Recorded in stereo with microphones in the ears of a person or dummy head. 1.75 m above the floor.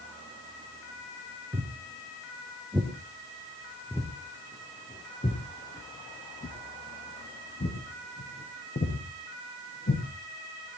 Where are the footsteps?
20° right (ahead or behind), 2.5 m; by 10.0 s 40° left (ahead or behind), 5 m.